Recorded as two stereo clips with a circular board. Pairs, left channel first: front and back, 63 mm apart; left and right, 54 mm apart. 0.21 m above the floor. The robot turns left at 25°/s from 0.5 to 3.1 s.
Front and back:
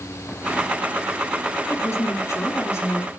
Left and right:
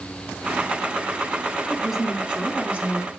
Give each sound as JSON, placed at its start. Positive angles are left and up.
{"t": 1.7, "sound": "a woman speaking", "azimuth_deg": 0, "distance_m": 2.5}